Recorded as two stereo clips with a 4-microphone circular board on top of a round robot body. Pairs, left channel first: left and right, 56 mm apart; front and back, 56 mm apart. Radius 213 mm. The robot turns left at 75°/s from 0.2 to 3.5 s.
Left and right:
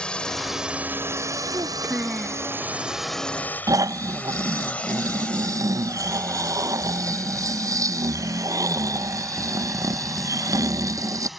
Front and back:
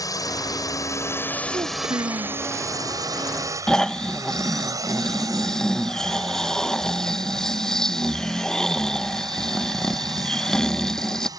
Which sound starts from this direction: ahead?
A drone, at 0.0 s.